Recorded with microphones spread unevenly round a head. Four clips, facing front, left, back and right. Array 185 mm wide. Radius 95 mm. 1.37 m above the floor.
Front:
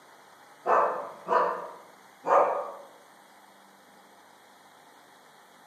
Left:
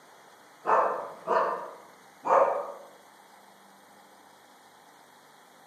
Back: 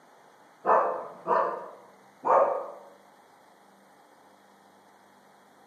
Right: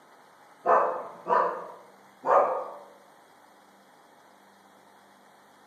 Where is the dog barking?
170° right, 6.5 m; by 2.5 s 165° right, 4.5 m.